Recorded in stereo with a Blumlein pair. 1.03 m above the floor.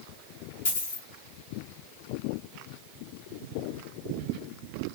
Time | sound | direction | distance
0.7 | a dropped coin | 65° left | 1.5 m